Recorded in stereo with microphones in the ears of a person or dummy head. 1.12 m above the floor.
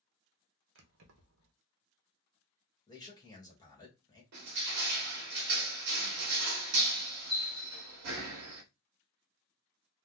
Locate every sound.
0.8 s keys jangling: 65° right (ahead or behind), 0.7 m
2.9 s a man speaking: 20° left (ahead or behind), 1.2 m
4.3 s crushing: 60° right (ahead or behind), 0.9 m